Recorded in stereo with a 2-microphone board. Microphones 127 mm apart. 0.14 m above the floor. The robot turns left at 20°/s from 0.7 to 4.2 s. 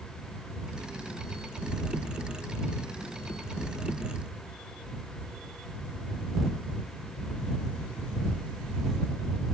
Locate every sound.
Only background noise.